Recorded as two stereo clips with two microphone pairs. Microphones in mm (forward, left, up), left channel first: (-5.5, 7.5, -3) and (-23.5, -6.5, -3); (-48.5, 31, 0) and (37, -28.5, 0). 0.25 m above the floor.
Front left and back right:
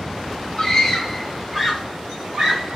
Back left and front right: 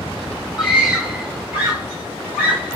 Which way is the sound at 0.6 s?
45° left.